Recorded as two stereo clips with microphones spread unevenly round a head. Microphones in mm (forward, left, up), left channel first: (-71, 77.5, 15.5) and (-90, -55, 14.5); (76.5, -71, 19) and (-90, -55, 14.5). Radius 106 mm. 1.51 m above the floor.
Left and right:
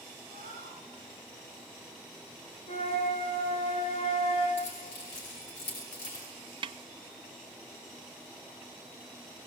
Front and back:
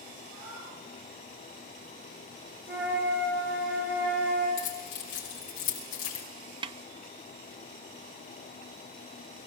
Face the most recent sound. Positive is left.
turn(degrees=-135)